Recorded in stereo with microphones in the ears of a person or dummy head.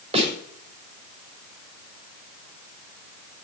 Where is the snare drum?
35° right (ahead or behind), 7 m.